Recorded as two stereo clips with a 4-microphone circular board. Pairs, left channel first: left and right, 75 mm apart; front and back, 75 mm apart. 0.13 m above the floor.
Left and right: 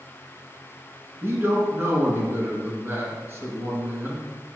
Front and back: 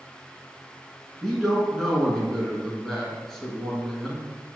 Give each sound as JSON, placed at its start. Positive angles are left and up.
{"t": 1.2, "sound": "a man speaking", "azimuth_deg": -80, "distance_m": 1.1}